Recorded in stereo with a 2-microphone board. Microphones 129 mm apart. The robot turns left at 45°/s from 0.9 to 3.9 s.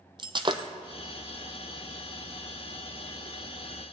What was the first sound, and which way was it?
Breaking glass, 35° right (ahead or behind).